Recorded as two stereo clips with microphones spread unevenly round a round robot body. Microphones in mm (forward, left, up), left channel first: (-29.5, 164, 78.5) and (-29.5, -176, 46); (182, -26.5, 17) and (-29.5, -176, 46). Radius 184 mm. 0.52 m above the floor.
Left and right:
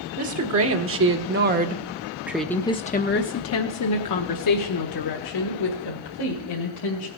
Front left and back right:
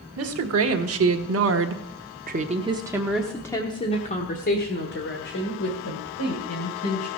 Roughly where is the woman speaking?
Behind right.